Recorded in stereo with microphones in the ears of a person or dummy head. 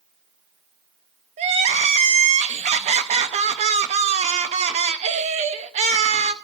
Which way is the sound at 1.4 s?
35° right (ahead or behind).